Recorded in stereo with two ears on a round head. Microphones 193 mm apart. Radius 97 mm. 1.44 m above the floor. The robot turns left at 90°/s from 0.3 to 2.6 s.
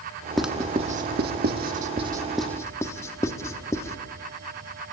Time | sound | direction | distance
0.4 | writing | centre (ahead or behind) | 1.2 m